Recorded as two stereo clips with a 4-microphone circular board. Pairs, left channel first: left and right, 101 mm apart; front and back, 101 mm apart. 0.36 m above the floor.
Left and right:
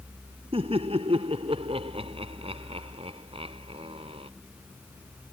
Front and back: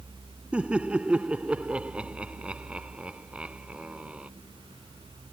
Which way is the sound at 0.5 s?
100° right.